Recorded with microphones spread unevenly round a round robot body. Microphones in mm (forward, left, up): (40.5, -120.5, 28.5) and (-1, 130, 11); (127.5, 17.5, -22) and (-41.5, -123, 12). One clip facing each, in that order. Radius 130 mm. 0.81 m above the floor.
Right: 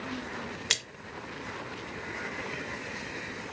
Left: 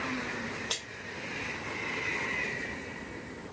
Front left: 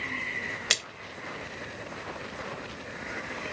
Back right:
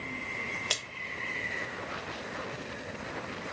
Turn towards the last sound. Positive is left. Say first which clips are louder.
# right 1 dB, front left 2 dB
turn(degrees=-25)